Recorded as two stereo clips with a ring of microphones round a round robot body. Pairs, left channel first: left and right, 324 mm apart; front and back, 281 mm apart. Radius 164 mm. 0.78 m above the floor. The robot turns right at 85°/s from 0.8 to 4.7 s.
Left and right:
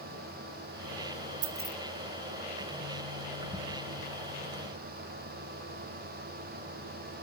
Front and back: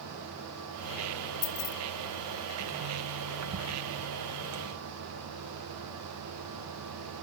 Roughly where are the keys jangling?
Ahead right.